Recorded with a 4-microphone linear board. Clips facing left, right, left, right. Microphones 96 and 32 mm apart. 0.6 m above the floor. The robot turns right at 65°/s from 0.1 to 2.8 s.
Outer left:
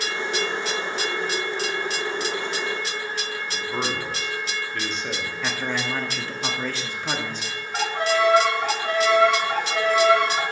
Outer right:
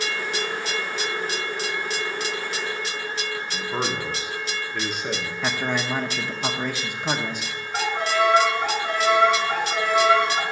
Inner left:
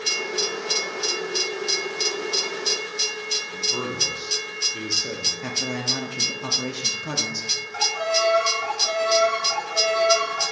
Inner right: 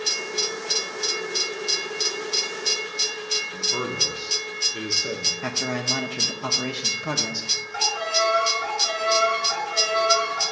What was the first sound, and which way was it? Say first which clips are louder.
A man speaking: even, even; 10° right (ahead or behind).